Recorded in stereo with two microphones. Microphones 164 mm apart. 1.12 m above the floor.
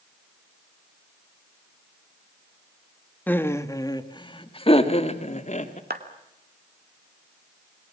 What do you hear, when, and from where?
3.3 s laughter: 10° left (ahead or behind), 1.7 m; by 5.8 s 50° left (ahead or behind), 2.5 m
5.9 s a clap: 75° right (ahead or behind), 2.5 m